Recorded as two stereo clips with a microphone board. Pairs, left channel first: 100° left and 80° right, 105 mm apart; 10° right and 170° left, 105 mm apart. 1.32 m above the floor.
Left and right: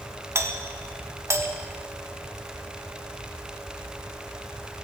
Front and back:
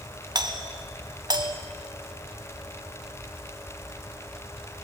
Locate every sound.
0.3 s a doorbell: 140° right, 1.7 m